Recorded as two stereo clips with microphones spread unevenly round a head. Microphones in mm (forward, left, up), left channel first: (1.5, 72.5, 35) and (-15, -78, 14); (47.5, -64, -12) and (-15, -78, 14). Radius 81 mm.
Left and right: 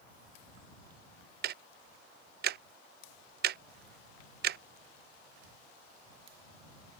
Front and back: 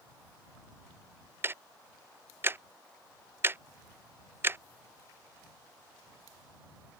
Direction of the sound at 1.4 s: 105° right.